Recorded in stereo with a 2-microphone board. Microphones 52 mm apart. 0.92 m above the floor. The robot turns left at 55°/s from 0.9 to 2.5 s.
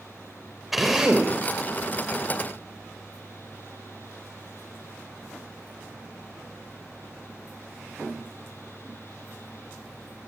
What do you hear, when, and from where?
0.7 s a drill: 5° right (ahead or behind), 4 m; by 1.3 s 25° right (ahead or behind), 4 m